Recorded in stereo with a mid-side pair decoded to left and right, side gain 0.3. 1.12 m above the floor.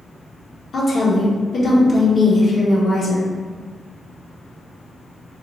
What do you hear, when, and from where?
0.7 s a woman speaking: 65° left, 1.4 m